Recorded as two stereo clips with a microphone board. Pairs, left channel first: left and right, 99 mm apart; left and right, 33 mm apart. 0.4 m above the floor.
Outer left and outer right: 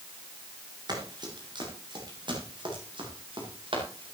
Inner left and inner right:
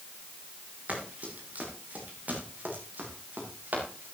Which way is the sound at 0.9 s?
45° right (ahead or behind).